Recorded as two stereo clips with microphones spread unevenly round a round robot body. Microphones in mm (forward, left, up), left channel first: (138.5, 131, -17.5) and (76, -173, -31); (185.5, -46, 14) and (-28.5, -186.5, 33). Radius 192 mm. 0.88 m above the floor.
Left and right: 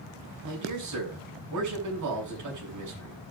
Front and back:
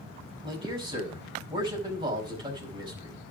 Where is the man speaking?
75° right, 4.5 m.